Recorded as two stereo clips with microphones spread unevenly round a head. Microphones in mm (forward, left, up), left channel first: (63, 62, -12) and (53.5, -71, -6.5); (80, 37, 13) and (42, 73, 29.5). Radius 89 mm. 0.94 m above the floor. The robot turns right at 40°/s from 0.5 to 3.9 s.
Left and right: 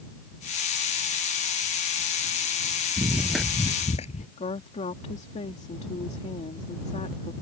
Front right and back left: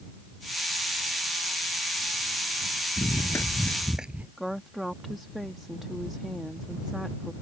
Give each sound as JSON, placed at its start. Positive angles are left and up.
{"t": 3.0, "sound": "running footsteps", "azimuth_deg": -50}
{"t": 4.4, "sound": "a woman speaking", "azimuth_deg": 50}